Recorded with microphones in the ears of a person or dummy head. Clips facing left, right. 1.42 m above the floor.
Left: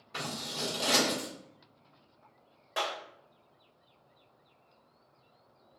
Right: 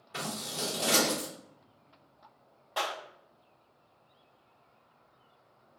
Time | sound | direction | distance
0.1 | scissors | 5° right (ahead or behind) | 1.2 m
2.8 | a clap | 20° left (ahead or behind) | 1.1 m